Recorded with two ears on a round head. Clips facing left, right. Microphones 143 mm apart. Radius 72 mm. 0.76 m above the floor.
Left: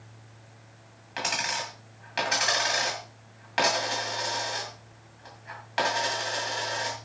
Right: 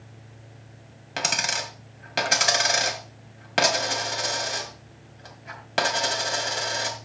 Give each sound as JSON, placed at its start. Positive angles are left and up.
{"t": 1.2, "sound": "a dropped coin", "side_deg": -55, "distance_m": 2.0}